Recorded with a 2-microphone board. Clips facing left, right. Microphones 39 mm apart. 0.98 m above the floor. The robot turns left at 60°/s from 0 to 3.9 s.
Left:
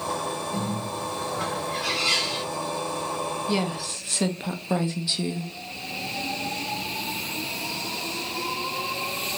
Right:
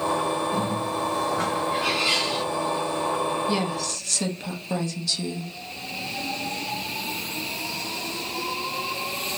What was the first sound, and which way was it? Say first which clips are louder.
A bird: right 4 dB; 65° right.